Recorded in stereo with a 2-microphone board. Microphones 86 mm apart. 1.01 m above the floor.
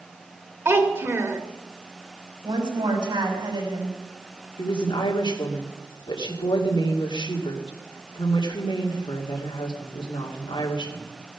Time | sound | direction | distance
0.7 | a child speaking | 30° right (ahead or behind) | 1.9 m
2.4 | a woman speaking | 65° right (ahead or behind) | 6 m
4.6 | a woman speaking | 70° left (ahead or behind) | 2 m